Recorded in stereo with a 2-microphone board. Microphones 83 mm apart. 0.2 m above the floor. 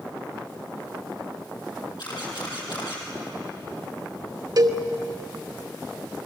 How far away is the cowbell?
About 1.2 m.